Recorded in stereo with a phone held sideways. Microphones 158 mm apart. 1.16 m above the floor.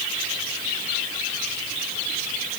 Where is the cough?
No cough in this recording.